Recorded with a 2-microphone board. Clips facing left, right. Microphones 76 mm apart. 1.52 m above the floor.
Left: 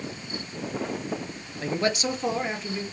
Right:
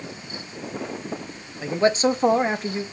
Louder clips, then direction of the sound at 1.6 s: Right 6 dB; 10° right (ahead or behind).